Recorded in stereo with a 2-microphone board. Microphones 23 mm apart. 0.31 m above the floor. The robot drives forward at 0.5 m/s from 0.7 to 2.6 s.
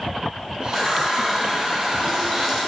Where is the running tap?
10° left (ahead or behind), 1.1 m; by 2.6 s 5° left (ahead or behind), 1.9 m.